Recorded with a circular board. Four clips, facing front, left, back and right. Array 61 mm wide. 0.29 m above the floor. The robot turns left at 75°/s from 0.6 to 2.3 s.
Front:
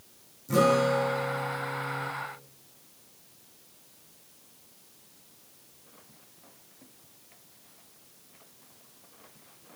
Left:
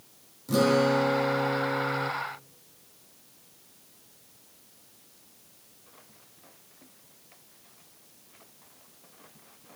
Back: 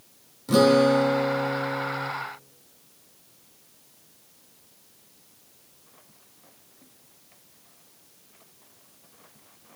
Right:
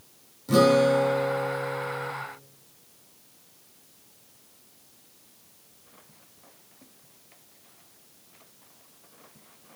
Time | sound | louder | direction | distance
0.5 | a guitar | right 4 dB, back 5 dB | 165° right | 5.5 m